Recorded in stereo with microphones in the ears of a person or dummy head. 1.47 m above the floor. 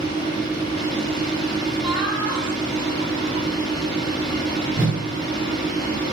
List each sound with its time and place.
0.0 s a fan: 30° left (ahead or behind), 1.1 m
1.8 s laughter: 35° left (ahead or behind), 2 m
4.8 s a whoosh: 10° right (ahead or behind), 0.7 m